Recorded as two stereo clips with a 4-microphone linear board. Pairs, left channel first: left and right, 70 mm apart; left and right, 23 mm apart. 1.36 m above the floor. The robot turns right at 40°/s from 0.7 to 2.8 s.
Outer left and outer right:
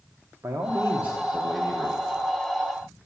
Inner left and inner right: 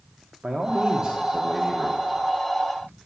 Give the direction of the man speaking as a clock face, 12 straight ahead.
1 o'clock.